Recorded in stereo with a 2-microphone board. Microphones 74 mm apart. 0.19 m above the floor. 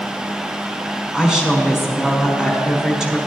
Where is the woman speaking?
10° right (ahead or behind), 1.5 m.